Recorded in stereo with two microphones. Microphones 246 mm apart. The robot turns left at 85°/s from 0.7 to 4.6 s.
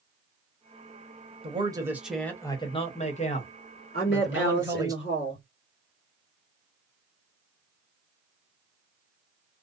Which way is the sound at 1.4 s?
25° right (ahead or behind).